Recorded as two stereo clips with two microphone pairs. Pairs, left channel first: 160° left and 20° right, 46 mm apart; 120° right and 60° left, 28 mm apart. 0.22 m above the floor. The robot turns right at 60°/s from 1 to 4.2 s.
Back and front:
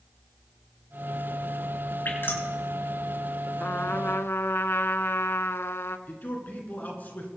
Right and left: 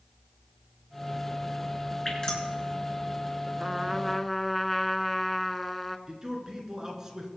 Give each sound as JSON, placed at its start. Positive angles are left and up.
{"t": 2.0, "sound": "dripping", "azimuth_deg": 165, "distance_m": 3.5}
{"t": 3.6, "sound": "a trumpet", "azimuth_deg": 115, "distance_m": 0.6}
{"t": 6.1, "sound": "a man speaking", "azimuth_deg": 115, "distance_m": 2.5}